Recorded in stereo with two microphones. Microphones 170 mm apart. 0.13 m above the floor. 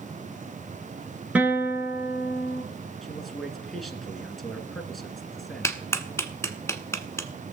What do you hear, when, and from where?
1.4 s a guitar: 10° right (ahead or behind), 1.9 m
3.0 s a man speaking: centre (ahead or behind), 1.8 m
5.6 s a clap: 15° left (ahead or behind), 1.0 m